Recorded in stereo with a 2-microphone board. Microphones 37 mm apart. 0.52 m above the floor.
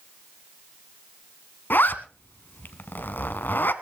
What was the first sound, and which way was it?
A zipper, 60° left (ahead or behind).